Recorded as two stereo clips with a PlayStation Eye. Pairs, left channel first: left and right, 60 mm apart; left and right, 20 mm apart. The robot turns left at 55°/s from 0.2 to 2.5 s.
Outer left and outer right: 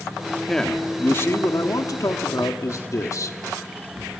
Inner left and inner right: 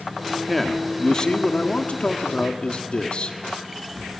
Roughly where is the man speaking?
Behind.